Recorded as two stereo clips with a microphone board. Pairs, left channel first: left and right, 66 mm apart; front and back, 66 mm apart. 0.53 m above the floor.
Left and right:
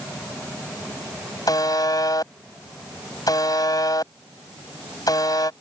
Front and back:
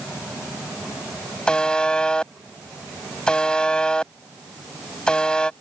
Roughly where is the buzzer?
Left.